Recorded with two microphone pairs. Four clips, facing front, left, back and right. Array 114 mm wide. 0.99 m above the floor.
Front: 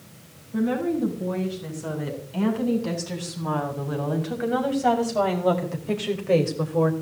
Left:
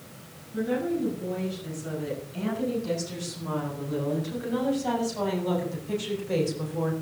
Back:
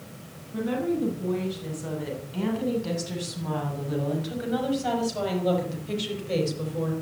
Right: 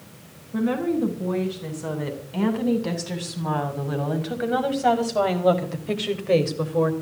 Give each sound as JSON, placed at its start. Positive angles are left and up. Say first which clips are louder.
{"t": 0.5, "sound": "a woman speaking", "louder": "right 4 dB, front 3 dB", "azimuth_deg": -80, "distance_m": 10.0}